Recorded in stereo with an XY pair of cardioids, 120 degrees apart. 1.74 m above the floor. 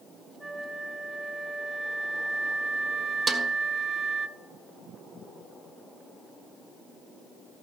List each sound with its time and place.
0.4 s a flute: 20° right, 1.1 m
3.3 s a snare drum: 30° right, 1.8 m